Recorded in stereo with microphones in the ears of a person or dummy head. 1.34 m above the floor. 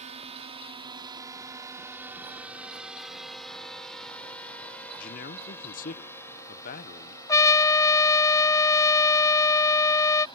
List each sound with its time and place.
0.0 s a drone: 30° right (ahead or behind); by 10.4 s 25° left (ahead or behind)
5.0 s a man speaking: 45° left (ahead or behind)
7.3 s a trumpet: 15° left (ahead or behind)